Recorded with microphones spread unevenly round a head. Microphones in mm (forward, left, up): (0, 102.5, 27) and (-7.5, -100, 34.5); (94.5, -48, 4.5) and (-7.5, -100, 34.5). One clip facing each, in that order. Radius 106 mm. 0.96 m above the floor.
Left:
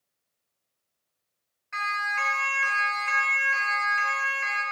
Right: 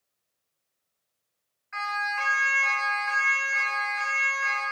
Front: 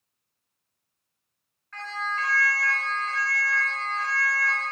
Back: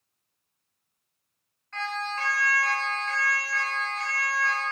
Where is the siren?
135° left, 8 m.